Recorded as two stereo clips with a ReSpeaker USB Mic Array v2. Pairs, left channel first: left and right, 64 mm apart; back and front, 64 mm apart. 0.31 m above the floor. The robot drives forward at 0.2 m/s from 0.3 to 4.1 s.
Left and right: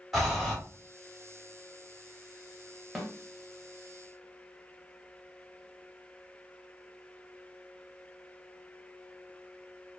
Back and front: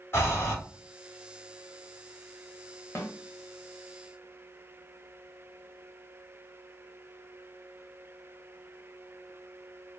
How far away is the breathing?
About 1.3 m.